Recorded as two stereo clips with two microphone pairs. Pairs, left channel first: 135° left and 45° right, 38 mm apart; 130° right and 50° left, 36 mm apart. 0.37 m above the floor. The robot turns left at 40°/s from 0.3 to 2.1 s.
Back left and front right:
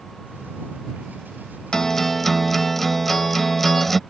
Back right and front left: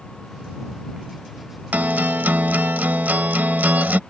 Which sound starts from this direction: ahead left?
A guitar, at 1.7 s.